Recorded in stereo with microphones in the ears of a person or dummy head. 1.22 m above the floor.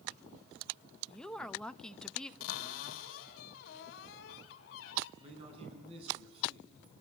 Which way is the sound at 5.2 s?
35° right (ahead or behind).